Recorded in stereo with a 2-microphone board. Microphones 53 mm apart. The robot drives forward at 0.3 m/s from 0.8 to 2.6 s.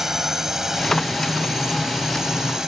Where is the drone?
5° right (ahead or behind); by 2.7 s 10° right (ahead or behind).